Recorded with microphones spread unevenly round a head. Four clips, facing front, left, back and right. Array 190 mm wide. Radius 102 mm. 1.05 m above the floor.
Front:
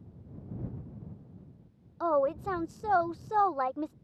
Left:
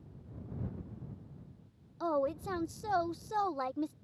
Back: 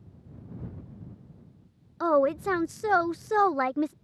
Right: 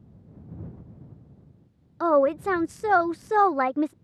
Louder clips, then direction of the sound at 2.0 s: Right 12 dB, back 4 dB; 135° right.